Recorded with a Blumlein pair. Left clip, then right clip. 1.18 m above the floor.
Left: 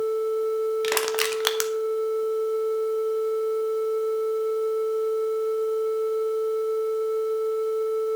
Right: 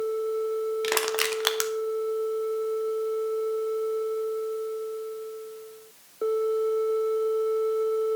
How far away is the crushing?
About 0.9 m.